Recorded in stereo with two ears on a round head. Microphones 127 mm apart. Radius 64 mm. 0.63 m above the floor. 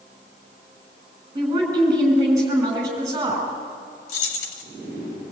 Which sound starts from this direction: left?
Keys jangling, at 4.1 s.